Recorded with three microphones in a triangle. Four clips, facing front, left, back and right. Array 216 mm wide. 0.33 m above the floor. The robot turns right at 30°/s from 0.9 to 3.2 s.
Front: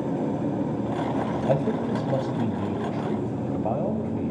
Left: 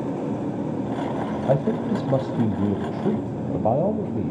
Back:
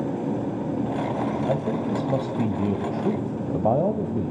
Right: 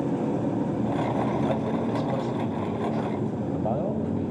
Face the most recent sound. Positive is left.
turn(degrees=130)